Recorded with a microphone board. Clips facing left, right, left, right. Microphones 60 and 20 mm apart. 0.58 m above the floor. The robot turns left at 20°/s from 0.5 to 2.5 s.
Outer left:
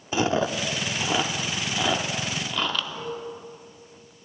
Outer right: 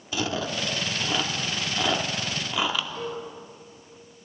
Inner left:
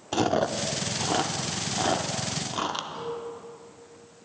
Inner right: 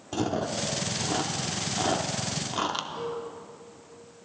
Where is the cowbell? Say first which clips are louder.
Outer right 1 dB, inner right 1 dB; 15° left (ahead or behind), 4.5 m.